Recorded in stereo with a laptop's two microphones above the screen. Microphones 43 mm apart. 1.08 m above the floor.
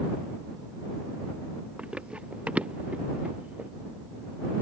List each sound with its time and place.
1.8 s running footsteps: 25° right (ahead or behind); by 3.7 s 35° right (ahead or behind)